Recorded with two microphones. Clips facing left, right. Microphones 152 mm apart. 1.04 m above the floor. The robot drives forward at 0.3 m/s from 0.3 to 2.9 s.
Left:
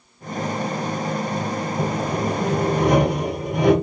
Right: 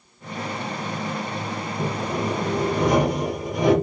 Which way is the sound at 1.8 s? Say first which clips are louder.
Left 1 dB; 60° left (ahead or behind).